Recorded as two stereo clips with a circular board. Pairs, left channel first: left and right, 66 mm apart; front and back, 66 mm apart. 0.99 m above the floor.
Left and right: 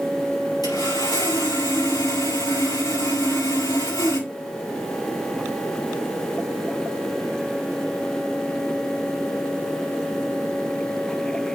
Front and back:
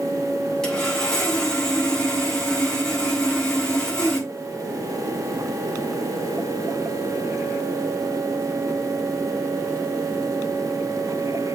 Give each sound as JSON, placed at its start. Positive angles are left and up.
{"t": 0.6, "sound": "sawing", "azimuth_deg": 80, "distance_m": 5.0}